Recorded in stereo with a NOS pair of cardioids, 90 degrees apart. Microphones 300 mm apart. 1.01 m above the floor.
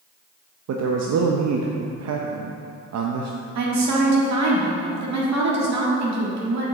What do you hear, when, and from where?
0.7 s a man speaking: 60° right, 0.7 m
3.5 s a woman speaking: 65° right, 1.8 m